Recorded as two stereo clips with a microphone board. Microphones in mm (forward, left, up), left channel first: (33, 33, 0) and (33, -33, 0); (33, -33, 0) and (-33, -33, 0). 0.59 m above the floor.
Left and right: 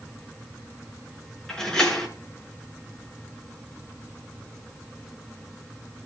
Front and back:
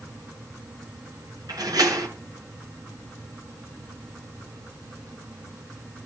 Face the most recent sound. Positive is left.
turn(degrees=165)